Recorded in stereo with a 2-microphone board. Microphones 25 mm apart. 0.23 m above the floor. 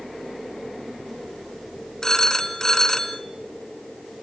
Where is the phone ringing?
20° left (ahead or behind), 2 m.